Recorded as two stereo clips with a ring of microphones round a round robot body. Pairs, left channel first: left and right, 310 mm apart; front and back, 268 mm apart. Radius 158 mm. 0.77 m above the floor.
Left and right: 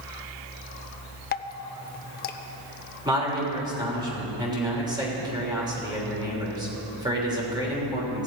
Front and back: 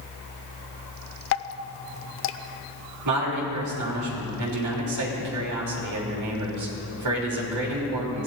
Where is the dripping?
30° left, 0.6 m.